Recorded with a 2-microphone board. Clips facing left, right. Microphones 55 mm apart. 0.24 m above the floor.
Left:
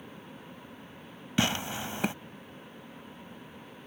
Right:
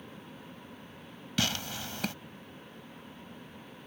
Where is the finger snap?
No finger snap in this recording.